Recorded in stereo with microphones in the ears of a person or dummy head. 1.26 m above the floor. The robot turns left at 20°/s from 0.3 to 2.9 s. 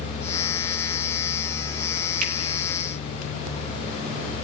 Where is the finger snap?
40° right (ahead or behind), 2.5 m; by 2.3 s 45° right (ahead or behind), 2.5 m.